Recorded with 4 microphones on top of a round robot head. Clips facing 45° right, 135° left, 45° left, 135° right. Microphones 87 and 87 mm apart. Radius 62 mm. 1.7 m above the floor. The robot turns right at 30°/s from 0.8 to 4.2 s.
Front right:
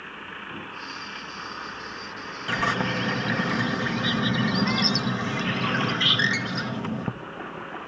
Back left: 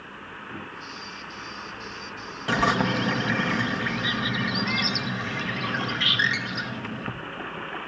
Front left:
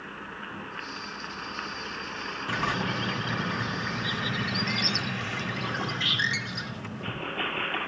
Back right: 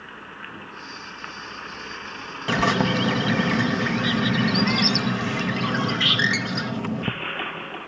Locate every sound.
2.5 s a bird: 155° right, 0.9 m; by 7.1 s 105° right, 0.9 m